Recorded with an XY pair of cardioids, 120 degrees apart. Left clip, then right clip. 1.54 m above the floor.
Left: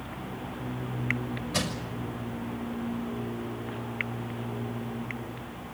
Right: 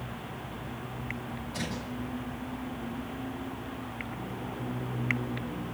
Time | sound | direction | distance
1.5 | crushing | 65° left | 6.5 m